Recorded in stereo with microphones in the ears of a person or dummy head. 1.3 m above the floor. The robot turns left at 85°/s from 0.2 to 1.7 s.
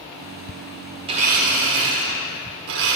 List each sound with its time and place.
1.1 s a blender: 30° right, 1.3 m; by 3.0 s 80° right, 1.3 m